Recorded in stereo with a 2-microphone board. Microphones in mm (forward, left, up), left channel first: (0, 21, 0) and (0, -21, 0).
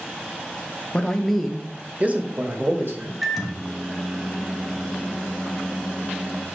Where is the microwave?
Centre (ahead or behind), 1.3 m.